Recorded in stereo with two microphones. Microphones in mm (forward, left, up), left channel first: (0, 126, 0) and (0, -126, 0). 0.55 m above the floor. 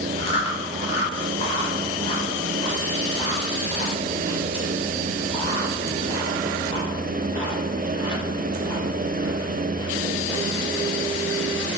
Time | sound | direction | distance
0.2 | chewing | 25° left (ahead or behind) | 0.8 m